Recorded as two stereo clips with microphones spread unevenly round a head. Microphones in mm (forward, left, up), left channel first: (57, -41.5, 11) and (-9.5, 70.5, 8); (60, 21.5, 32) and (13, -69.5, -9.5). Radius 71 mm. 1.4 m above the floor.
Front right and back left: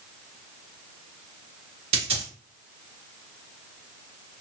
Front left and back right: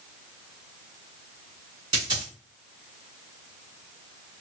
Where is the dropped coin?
170° left, 2.5 m.